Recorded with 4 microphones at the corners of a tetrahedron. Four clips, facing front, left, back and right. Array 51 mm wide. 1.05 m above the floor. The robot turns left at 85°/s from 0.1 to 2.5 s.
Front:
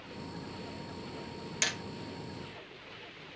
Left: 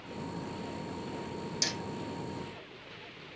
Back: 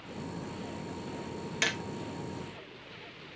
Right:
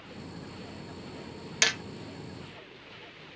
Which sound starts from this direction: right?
Hammering, at 1.6 s.